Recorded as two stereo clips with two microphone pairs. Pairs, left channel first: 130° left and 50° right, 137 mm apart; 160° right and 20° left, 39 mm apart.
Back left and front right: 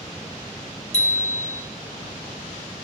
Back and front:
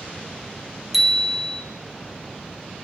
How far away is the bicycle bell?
About 2.5 m.